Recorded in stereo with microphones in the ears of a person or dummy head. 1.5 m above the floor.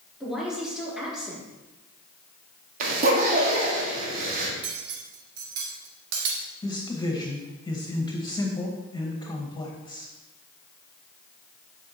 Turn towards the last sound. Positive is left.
turn(degrees=20)  # may be behind; listen again after turning